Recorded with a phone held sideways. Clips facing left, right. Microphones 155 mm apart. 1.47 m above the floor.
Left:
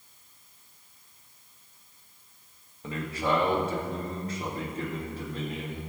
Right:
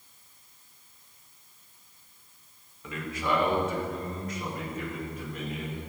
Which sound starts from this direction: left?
A man speaking, at 2.8 s.